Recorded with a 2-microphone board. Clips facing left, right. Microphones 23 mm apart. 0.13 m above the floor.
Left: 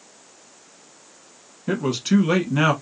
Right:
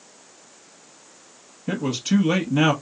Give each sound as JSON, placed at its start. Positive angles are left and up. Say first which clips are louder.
{"t": 1.7, "sound": "a man speaking", "louder": "left 2 dB", "side_deg": 20, "distance_m": 1.0}